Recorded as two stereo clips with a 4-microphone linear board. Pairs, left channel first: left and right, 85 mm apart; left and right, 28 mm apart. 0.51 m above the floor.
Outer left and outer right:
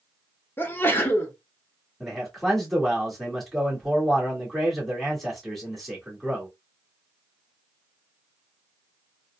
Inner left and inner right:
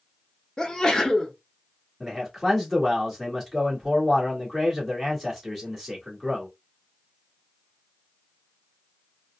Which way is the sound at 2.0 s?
5° left (ahead or behind).